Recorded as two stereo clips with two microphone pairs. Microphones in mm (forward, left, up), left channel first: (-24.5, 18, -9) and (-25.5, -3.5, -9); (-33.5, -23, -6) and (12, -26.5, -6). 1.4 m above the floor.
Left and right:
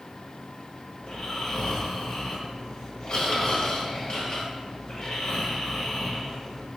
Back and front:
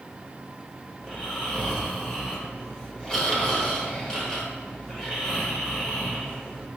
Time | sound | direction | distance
1.0 | snoring | 110° left | 1.1 m